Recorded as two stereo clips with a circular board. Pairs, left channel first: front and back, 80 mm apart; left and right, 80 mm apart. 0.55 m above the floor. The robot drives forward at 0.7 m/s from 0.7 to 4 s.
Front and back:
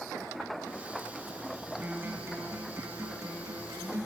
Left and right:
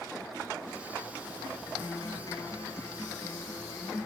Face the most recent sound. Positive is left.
turn(degrees=145)